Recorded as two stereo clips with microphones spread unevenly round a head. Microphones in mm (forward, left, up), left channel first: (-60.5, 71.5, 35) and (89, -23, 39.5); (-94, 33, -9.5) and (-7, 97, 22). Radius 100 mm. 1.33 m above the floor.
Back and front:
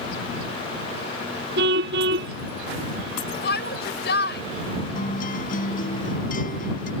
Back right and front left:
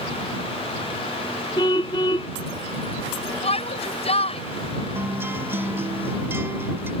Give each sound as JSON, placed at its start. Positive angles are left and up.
{"t": 1.6, "sound": "a car horn", "azimuth_deg": -70}
{"t": 3.4, "sound": "a shout", "azimuth_deg": -170}
{"t": 5.0, "sound": "a guitar", "azimuth_deg": 105}